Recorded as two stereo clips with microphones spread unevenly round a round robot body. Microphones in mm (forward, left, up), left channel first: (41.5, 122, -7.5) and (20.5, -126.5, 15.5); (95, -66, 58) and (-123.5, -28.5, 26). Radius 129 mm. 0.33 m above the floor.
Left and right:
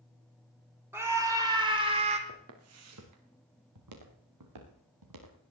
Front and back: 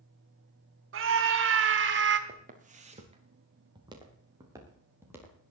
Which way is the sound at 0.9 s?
Straight behind.